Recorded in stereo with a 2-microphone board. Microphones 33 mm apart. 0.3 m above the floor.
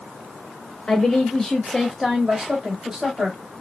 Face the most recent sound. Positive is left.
turn(degrees=-25)  # may be behind; listen again after turning